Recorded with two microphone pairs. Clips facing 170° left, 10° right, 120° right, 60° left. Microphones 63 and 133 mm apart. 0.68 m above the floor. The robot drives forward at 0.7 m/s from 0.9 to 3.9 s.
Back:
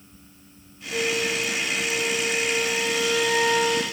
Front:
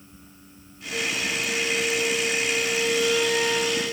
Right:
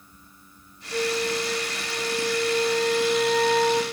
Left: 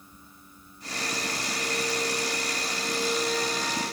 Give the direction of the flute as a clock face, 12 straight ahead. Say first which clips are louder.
Back 3 dB, right 8 dB; 4 o'clock.